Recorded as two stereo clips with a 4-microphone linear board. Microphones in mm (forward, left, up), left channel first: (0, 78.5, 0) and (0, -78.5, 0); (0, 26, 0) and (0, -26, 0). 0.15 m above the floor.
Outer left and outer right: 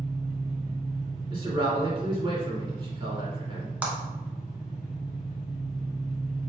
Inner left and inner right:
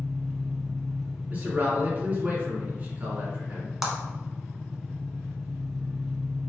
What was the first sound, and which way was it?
An engine running, 5° right (ahead or behind).